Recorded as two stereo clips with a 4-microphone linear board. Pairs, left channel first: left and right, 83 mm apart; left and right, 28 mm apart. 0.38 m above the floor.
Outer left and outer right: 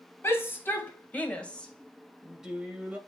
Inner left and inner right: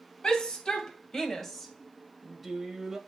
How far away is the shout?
About 2.5 m.